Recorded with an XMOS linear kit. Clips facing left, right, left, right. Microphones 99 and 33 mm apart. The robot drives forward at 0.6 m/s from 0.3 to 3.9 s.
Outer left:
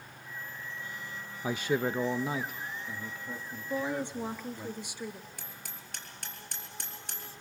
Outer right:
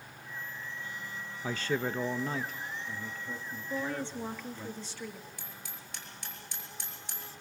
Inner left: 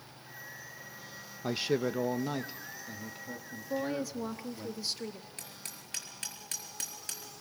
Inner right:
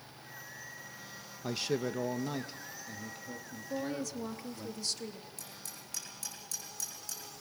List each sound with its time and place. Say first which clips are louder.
1.4 s a man speaking: outer left 3 dB, inner left 3 dB; 15° left (ahead or behind), 0.5 m; by 4.7 s 5° left (ahead or behind), 1.5 m
3.7 s a woman speaking: outer left 3 dB, inner left 3 dB; 15° left (ahead or behind), 1.0 m
5.4 s hammering: even, inner left 1 dB; 55° left (ahead or behind), 4.5 m